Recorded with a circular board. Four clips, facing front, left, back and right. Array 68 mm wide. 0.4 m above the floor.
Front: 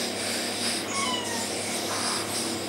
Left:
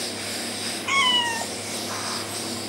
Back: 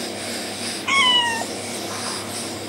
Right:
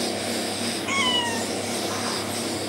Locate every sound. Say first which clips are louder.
0.9 s a cat meowing: left 3 dB, back 14 dB; 165° left, 0.8 m